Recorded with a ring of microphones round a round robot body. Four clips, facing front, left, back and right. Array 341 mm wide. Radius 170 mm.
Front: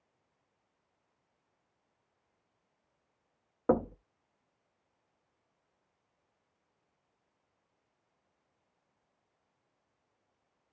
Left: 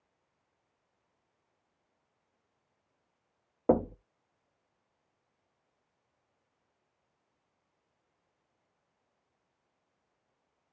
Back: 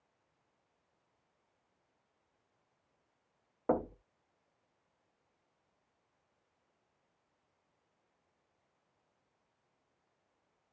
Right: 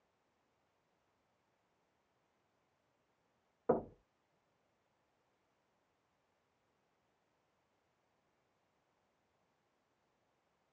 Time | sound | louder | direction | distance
3.7 | knocking | left 8 dB, front 4 dB | 65° left | 0.7 m